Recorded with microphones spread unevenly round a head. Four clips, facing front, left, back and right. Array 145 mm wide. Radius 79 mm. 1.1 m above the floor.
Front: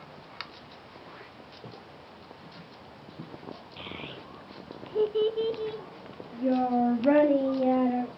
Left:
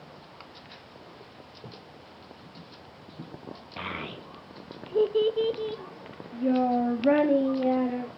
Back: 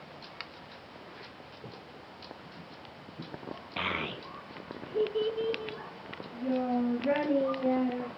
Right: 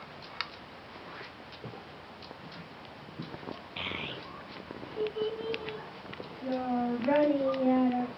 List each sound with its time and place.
3.8 s a child speaking: 155° left, 1.0 m; by 8.2 s 40° left, 3 m